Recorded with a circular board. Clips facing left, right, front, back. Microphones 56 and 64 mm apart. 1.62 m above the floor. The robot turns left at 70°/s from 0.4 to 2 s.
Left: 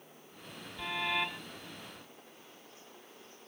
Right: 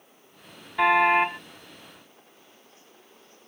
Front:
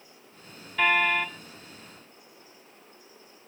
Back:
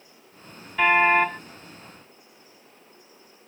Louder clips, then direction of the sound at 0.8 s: Right 15 dB, back 5 dB; 105° right.